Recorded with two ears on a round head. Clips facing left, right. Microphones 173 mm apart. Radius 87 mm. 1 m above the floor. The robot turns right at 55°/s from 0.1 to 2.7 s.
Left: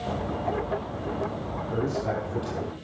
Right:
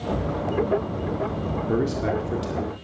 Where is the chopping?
I don't hear chopping.